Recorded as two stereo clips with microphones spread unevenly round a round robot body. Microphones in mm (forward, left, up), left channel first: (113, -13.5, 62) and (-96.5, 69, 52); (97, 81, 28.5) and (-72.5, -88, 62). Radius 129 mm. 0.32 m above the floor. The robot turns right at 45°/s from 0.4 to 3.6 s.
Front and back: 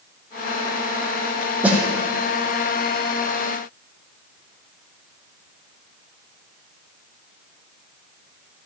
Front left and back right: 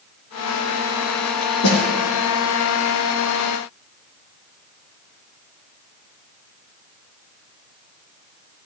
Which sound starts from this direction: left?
A snare drum, at 1.6 s.